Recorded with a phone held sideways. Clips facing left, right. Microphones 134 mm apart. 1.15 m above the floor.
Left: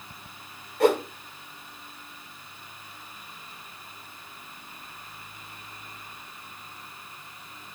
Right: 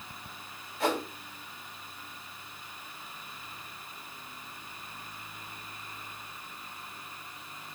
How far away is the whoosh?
About 2.0 m.